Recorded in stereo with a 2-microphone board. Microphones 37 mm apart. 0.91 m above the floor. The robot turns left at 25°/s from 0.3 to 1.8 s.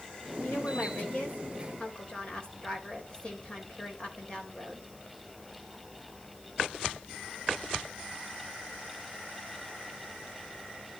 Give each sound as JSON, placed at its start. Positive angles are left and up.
{"t": 0.4, "sound": "a woman speaking", "azimuth_deg": 60, "distance_m": 4.5}